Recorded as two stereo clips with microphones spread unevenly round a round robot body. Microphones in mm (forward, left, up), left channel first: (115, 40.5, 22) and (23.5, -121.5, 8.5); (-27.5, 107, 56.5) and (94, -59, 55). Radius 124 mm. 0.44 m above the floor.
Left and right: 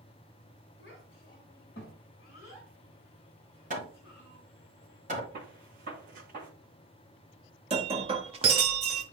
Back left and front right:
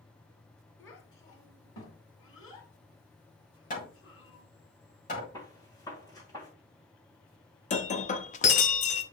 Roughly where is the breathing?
I don't hear breathing.